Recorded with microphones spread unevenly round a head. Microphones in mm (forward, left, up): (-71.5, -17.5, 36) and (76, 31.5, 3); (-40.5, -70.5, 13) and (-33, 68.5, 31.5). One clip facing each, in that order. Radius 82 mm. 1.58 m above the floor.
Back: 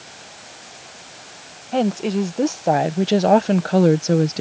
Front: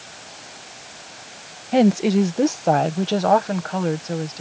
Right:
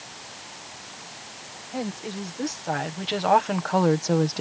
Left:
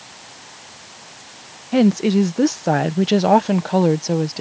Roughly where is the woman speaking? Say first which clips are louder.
Front 4 dB, left 17 dB; left.